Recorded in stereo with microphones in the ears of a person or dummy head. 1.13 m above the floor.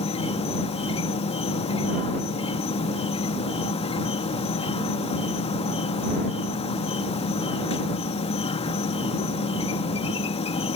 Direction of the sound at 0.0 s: 35° left (ahead or behind).